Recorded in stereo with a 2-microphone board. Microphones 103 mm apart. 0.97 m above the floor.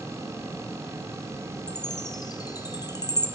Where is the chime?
40° left (ahead or behind), 0.5 m.